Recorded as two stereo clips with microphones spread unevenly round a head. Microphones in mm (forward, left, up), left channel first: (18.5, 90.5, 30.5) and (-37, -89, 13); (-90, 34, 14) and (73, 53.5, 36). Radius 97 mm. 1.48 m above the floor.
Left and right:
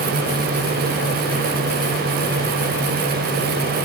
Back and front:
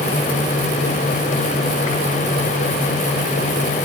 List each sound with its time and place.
Only background noise.